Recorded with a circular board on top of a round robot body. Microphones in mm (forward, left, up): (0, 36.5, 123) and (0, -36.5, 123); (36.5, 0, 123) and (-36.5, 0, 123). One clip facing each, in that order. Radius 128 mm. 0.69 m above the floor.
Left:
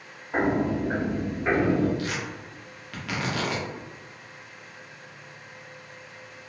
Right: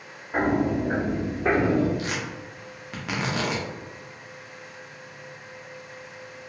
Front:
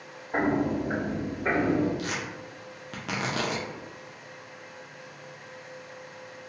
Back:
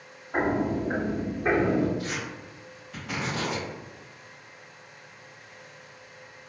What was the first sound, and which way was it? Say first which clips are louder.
Footsteps: right 1 dB, even; 25° left.